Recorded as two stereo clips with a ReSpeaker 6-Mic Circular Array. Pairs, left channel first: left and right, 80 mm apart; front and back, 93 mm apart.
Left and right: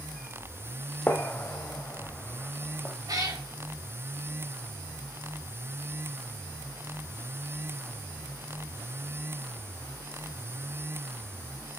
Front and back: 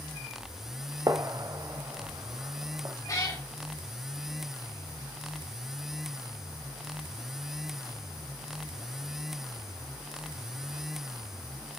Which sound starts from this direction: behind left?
A gunshot, at 1.1 s.